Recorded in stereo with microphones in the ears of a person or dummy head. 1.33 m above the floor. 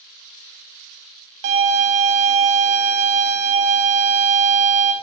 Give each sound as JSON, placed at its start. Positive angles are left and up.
{"t": 1.4, "sound": "a violin", "side_deg": -55, "distance_m": 0.7}